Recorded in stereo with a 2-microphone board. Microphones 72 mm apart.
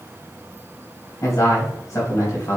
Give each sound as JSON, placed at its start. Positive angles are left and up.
{"t": 1.2, "sound": "a man speaking", "side_deg": 50, "distance_m": 3.0}